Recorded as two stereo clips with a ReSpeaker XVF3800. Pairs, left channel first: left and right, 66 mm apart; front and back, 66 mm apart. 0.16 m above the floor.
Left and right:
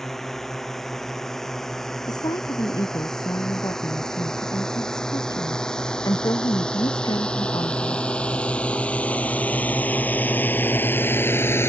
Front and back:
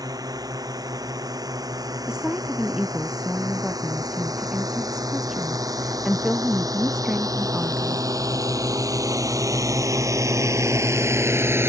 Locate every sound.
0.0 s a drone: 175° left; by 11.7 s 135° left
2.1 s a woman speaking: 100° left